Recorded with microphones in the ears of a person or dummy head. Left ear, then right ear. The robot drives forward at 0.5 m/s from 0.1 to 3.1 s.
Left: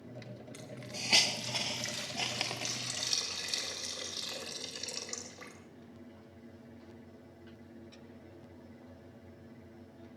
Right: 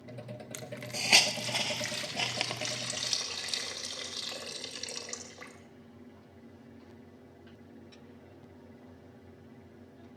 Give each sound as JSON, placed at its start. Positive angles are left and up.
{"t": 0.5, "sound": "a hiss", "side_deg": -30, "distance_m": 0.7}